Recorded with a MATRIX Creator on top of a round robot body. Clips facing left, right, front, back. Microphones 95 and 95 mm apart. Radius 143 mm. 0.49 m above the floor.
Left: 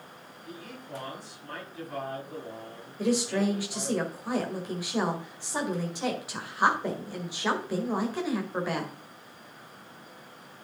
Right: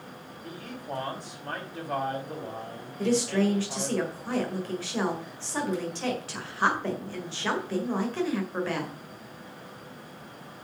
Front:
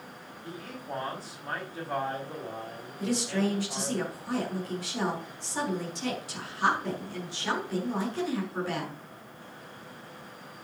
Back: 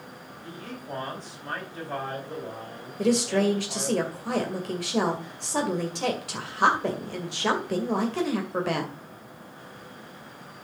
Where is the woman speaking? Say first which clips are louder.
Right 2 dB, back 6 dB; 165° left, 2.5 m.